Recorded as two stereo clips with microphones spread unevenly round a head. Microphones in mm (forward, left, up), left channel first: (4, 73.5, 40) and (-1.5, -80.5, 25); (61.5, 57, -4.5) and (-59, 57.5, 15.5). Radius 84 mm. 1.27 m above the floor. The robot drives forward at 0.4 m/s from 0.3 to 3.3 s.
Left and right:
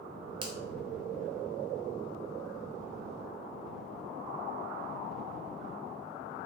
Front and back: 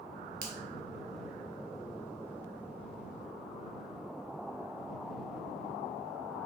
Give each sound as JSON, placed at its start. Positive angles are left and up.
{"t": 0.4, "sound": "a finger snap", "azimuth_deg": -150, "distance_m": 0.7}